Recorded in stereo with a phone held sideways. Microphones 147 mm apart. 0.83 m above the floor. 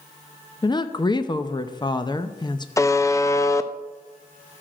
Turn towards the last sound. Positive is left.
turn(degrees=20)  # may be behind; listen again after turning